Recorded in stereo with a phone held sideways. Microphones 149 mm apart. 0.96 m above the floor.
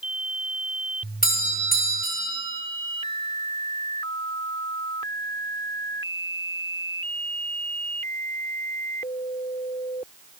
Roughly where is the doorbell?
Left.